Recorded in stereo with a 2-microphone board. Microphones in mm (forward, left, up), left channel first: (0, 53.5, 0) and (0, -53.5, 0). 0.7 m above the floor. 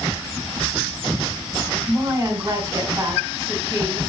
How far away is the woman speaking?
About 2.5 m.